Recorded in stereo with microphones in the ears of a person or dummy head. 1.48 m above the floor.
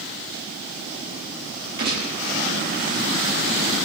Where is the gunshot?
60° right (ahead or behind), 7.5 m.